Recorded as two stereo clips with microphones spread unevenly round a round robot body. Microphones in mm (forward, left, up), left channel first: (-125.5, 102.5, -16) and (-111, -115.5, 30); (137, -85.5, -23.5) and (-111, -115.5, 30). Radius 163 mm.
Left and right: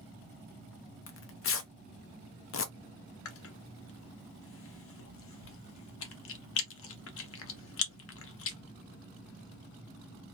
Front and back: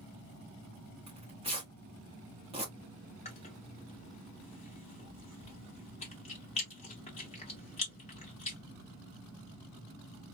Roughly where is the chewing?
Left.